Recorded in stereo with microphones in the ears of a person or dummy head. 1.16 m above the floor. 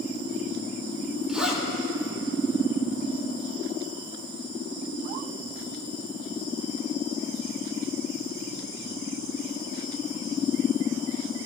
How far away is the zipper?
About 4.5 m.